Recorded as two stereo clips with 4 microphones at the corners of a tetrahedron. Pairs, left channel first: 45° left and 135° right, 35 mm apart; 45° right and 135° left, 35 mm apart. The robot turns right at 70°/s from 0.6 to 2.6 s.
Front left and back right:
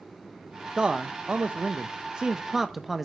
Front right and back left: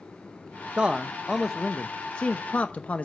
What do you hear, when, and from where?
0.8 s a man speaking: 175° left, 0.6 m; by 3.0 s 60° right, 0.6 m